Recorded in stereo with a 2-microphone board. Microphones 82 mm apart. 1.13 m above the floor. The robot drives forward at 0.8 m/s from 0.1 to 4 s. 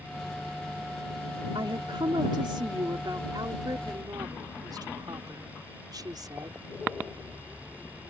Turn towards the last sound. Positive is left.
turn(degrees=-55)  # may be behind; listen again after turning